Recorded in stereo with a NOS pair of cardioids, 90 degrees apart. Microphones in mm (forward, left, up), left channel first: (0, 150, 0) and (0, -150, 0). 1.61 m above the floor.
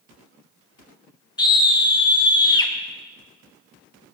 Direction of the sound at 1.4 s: 15° left.